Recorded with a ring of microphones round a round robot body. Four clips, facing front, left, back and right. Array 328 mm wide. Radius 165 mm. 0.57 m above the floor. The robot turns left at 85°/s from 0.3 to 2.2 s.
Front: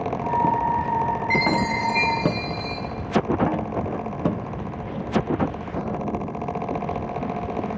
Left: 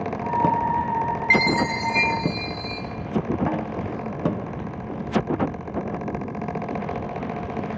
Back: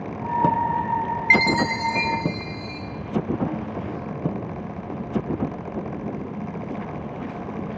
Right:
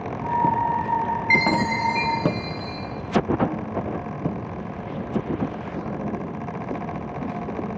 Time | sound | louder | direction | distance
1.3 | a chime | even, back 4 dB | 145° left | 0.5 m